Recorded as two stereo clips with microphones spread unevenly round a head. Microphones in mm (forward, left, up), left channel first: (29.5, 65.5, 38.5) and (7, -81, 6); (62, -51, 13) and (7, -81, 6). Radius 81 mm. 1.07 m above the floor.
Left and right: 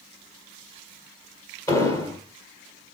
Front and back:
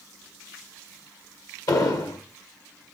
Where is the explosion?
15° left, 2 m.